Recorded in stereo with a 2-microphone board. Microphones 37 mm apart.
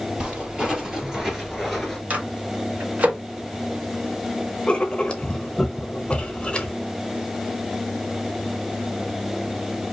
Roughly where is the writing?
Left.